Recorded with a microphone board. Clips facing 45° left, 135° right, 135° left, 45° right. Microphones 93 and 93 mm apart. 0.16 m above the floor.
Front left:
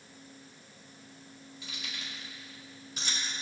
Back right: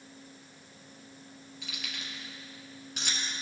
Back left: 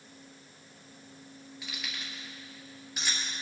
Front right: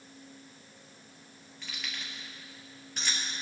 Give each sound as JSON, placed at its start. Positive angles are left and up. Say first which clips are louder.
{"t": 1.6, "sound": "keys jangling", "louder": "back right 1 dB, even", "azimuth_deg": -140, "distance_m": 2.5}